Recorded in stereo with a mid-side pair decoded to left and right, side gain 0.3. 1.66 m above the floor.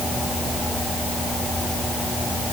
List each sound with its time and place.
Only background noise.